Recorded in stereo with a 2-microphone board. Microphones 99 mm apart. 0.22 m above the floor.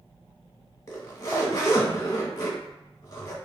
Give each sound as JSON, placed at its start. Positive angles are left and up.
{"t": 0.9, "sound": "a zipper", "side_deg": 30, "distance_m": 0.7}